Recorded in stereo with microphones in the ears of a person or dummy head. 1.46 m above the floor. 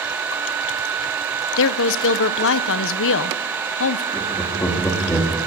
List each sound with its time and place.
1.6 s a woman speaking: 70° left (ahead or behind), 0.9 m
4.1 s laughter: 15° left (ahead or behind), 3.5 m